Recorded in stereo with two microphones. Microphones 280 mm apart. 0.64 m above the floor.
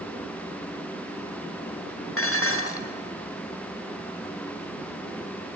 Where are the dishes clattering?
50° left (ahead or behind), 1.4 m.